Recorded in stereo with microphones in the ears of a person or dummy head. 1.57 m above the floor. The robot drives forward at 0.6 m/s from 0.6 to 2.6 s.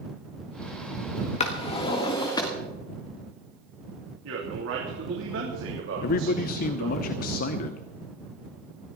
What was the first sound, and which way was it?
A drawer, 40° left (ahead or behind).